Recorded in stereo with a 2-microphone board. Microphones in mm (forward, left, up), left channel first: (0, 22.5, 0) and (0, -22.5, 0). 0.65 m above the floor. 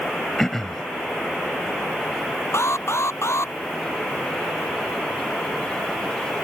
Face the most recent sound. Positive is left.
turn(degrees=85)